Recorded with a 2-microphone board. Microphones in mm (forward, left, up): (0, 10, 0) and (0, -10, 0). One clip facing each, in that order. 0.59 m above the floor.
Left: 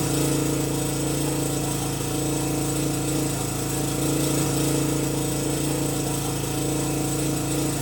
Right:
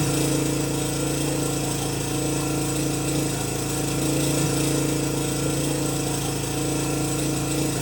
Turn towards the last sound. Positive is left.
turn(degrees=-35)  # may be behind; listen again after turning